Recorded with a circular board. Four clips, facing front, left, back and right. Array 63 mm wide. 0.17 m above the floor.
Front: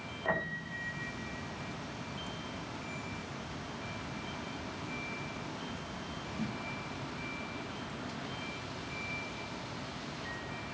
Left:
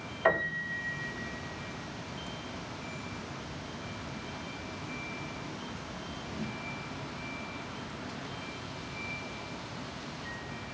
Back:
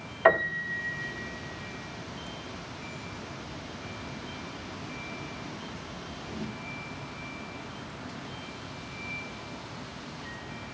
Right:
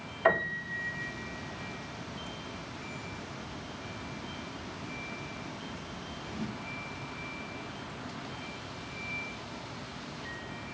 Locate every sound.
0.2 s a piano: straight behind, 6 m